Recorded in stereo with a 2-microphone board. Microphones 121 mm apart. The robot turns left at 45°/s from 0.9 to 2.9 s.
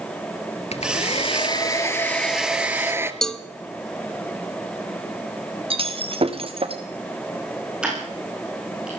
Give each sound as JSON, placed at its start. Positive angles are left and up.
{"t": 0.7, "sound": "a hair dryer", "azimuth_deg": 70, "distance_m": 1.7}
{"t": 3.2, "sound": "a cowbell", "side_deg": 5, "distance_m": 1.0}
{"t": 5.7, "sound": "breaking glass", "side_deg": -55, "distance_m": 3.0}
{"t": 7.8, "sound": "ticking", "side_deg": -5, "distance_m": 9.0}